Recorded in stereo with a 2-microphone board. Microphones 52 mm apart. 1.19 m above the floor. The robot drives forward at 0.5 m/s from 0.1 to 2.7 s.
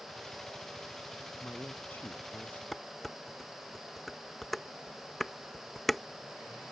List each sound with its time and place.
1.4 s a man speaking: 35° left (ahead or behind); by 2.6 s 40° left (ahead or behind)
2.7 s dishes clattering: centre (ahead or behind)